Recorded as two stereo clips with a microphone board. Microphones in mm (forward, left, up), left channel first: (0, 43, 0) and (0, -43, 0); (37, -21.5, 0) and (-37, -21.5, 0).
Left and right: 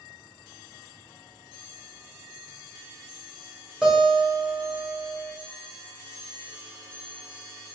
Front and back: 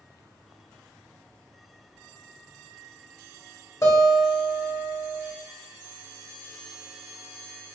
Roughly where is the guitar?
Ahead.